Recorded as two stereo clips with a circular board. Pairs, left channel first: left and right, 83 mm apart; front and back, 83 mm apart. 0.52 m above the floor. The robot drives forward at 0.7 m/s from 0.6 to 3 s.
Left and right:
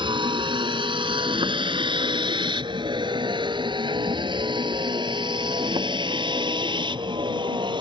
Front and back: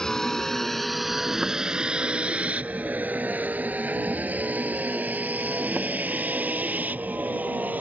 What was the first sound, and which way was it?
A vehicle, 85° right.